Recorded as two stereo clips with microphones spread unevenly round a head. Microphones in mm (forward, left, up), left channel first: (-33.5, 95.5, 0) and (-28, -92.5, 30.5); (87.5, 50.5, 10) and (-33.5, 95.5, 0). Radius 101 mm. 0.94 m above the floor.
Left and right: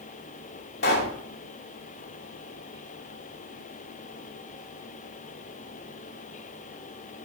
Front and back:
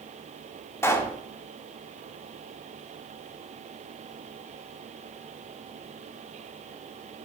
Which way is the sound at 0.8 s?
50° left.